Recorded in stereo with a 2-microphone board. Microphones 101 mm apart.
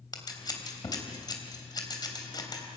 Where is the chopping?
No chopping in this recording.